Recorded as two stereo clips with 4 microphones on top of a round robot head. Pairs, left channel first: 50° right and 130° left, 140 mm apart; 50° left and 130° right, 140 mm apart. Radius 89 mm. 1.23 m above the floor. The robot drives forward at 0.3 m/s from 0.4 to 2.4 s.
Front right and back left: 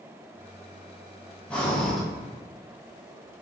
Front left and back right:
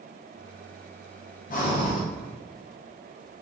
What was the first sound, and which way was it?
Breathing, 30° left.